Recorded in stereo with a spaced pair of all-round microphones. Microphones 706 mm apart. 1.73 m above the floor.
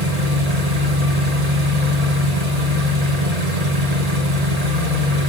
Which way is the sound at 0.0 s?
60° right (ahead or behind).